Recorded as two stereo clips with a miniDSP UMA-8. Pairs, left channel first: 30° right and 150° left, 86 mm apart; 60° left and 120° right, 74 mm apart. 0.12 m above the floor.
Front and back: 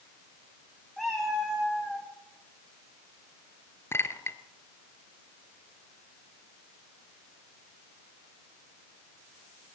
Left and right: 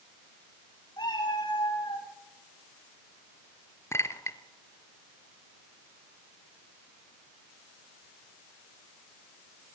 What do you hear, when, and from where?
1.0 s a cat meowing: 60° left, 5.5 m
3.9 s a clink: 20° left, 1.2 m